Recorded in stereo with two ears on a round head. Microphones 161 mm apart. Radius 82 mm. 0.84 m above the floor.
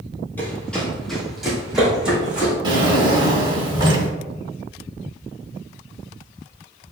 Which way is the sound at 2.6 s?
25° right (ahead or behind).